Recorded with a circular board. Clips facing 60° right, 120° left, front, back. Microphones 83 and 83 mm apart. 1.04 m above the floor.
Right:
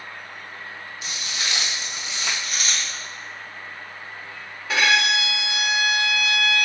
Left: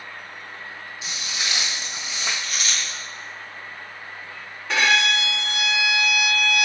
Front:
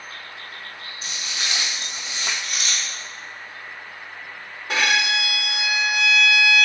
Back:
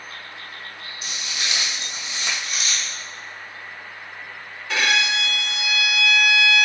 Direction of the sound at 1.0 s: 50° left.